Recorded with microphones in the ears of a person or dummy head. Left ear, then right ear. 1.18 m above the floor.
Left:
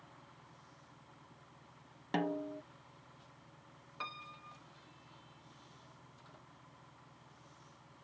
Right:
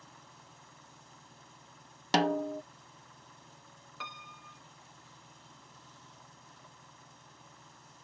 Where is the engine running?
80° right.